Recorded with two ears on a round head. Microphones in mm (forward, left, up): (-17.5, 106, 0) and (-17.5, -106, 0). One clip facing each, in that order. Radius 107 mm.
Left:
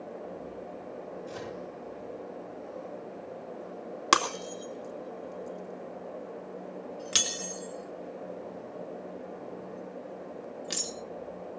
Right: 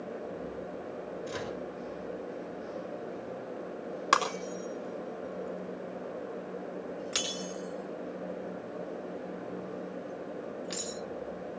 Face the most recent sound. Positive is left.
turn(degrees=45)  # may be behind; listen again after turning